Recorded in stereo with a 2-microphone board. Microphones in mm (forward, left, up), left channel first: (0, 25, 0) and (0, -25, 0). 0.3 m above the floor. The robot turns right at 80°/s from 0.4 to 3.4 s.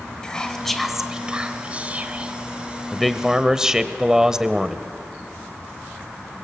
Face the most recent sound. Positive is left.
turn(degrees=-15)  # may be behind; listen again after turning